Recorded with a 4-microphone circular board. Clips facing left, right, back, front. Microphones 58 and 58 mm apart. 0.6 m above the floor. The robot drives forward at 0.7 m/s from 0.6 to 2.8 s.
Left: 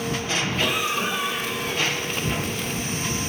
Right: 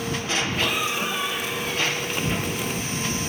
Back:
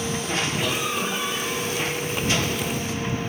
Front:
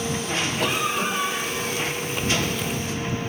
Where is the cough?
5° left, 5.5 m.